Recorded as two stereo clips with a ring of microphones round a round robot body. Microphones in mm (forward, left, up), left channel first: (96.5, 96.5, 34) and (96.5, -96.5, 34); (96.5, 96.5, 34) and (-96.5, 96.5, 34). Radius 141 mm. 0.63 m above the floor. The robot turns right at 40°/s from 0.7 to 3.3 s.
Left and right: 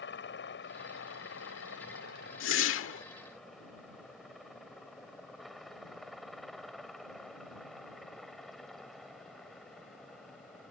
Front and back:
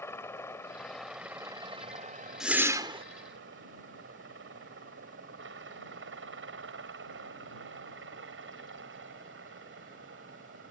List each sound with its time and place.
0.0 s a helicopter: 75° left; by 10.7 s straight behind
2.4 s a whoosh: 90° left; by 3.0 s 120° left